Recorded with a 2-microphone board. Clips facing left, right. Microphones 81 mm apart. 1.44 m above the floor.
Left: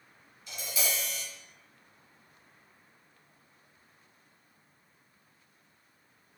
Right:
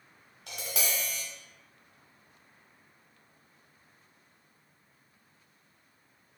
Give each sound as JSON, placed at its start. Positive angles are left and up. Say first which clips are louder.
{"t": 0.5, "sound": "tapping", "louder": "even", "side_deg": -75, "distance_m": 1.4}